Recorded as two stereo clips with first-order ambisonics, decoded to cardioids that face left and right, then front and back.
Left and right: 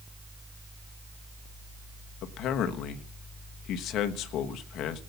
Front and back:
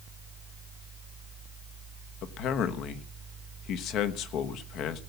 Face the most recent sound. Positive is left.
turn(degrees=45)